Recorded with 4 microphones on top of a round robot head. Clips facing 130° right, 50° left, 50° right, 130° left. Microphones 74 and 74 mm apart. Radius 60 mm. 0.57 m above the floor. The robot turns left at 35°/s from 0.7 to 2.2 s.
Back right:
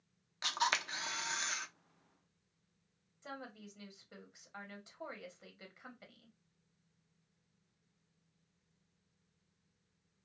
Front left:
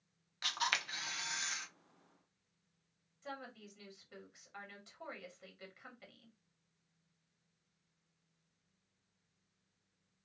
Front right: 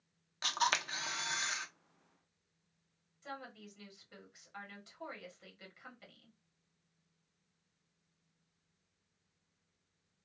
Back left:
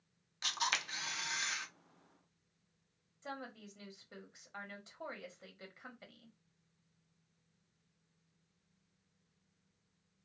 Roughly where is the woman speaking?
Behind.